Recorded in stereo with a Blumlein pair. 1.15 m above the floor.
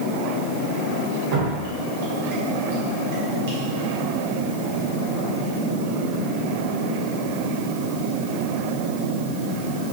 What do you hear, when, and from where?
1.3 s dripping: 45° right, 0.9 m